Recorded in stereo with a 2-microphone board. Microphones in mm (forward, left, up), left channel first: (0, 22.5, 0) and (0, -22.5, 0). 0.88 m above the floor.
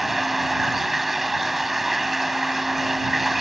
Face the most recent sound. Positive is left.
turn(degrees=-5)  # may be behind; listen again after turning